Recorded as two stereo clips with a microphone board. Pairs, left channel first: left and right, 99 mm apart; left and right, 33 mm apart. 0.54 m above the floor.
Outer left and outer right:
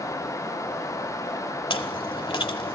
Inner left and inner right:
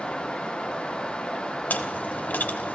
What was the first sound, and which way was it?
Chewing, 60° left (ahead or behind).